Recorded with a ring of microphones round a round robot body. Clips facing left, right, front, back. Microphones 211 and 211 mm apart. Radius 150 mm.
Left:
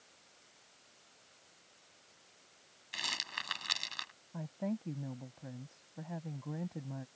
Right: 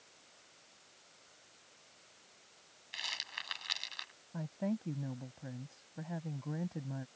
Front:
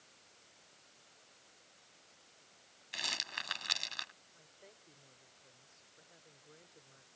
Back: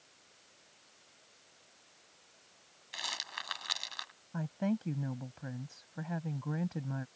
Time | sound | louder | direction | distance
2.9 | a rattle | left 5 dB, even | 60° left | ?
4.3 | a woman speaking | right 1 dB, back 29 dB | straight behind | ?